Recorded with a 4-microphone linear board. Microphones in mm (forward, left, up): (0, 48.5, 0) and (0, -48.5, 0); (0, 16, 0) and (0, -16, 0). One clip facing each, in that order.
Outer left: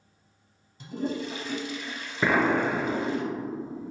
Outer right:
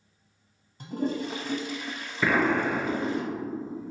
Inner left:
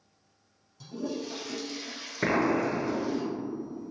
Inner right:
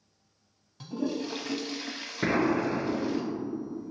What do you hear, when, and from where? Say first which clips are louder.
0.8 s a toilet flushing: outer right 2 dB, inner right 3 dB; 45° right (ahead or behind), 0.6 m
2.2 s an explosion: outer left 1 dB, even; 20° left (ahead or behind), 0.6 m